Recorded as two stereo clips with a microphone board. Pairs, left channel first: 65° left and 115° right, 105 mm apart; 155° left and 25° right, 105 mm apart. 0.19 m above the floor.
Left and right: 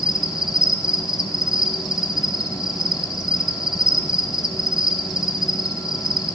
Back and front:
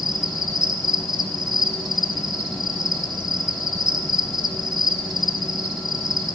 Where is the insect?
30° right, 1.1 m.